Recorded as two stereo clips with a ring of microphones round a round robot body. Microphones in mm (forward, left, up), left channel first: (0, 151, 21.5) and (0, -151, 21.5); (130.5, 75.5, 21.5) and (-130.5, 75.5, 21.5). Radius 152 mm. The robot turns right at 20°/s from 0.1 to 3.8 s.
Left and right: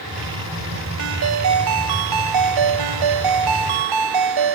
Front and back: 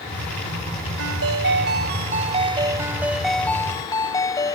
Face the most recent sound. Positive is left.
turn(degrees=-80)